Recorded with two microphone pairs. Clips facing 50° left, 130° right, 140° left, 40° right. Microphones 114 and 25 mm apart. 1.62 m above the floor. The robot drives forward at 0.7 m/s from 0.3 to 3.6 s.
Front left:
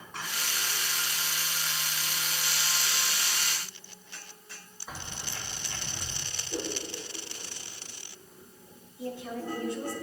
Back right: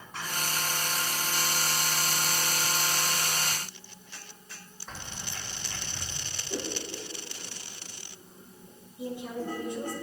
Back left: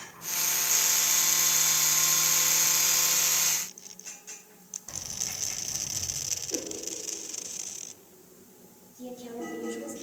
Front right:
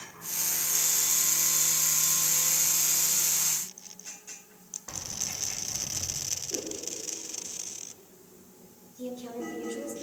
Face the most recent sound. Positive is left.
turn(degrees=-60)